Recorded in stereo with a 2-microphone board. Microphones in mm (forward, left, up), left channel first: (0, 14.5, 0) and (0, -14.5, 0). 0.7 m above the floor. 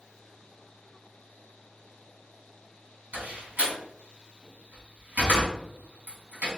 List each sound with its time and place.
3.1 s a door slam: 75° right (ahead or behind), 3 m